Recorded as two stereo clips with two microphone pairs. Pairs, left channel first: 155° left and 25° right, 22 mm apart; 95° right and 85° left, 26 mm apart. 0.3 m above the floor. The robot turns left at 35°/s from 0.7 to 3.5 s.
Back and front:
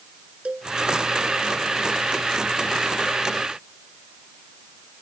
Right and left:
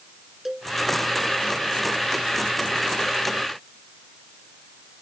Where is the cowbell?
Straight ahead.